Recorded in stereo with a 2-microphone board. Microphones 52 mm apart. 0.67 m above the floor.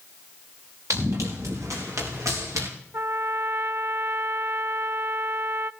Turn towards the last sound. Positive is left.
turn(degrees=-55)  # may be behind; listen again after turning